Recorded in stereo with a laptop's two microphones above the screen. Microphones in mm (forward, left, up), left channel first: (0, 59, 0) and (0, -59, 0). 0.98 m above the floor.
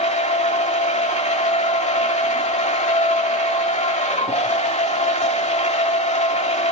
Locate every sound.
0.0 s a machine running: 80° left, 2 m